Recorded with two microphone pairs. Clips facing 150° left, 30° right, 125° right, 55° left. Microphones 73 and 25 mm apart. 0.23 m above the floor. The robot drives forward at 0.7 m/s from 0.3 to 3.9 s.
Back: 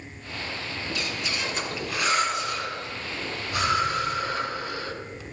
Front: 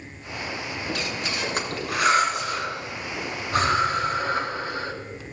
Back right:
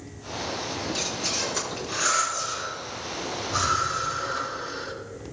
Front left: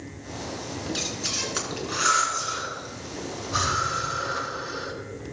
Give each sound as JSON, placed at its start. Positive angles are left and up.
{"t": 0.9, "sound": "breathing", "azimuth_deg": -5, "distance_m": 3.5}